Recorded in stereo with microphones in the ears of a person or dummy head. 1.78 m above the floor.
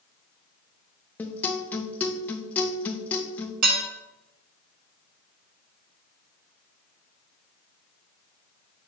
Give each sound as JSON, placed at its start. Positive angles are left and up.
{"t": 1.2, "sound": "a guitar", "side_deg": 15, "distance_m": 0.5}
{"t": 3.6, "sound": "dishes clattering", "side_deg": -60, "distance_m": 1.6}